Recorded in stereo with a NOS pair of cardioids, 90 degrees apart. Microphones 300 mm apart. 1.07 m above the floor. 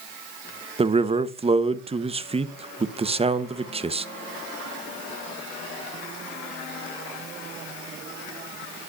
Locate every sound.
0.8 s a man speaking: 20° right, 0.9 m